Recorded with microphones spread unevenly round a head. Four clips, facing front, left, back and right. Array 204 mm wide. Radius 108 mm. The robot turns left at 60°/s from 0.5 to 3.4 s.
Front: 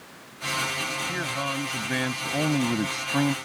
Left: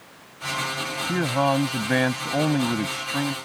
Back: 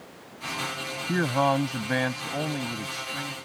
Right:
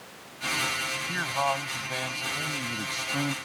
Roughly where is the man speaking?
Behind left.